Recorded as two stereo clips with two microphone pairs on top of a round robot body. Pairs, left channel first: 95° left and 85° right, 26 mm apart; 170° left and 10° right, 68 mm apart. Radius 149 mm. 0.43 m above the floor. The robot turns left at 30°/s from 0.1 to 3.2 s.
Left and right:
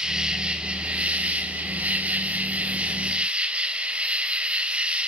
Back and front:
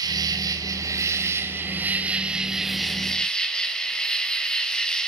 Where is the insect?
25° right, 3 m; by 5.1 s 115° right, 3 m.